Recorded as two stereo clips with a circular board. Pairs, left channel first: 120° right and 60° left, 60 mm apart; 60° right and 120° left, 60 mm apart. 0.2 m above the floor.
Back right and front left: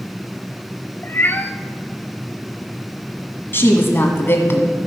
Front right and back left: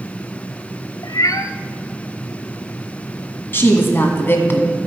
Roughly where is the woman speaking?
Right.